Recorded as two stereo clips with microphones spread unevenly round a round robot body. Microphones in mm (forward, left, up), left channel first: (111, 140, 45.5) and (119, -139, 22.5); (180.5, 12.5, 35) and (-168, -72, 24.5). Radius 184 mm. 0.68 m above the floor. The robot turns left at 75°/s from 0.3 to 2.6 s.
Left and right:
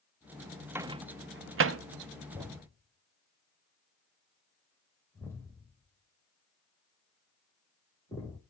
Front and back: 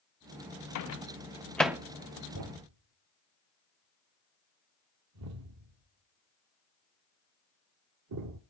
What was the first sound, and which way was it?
A microwave, 10° right.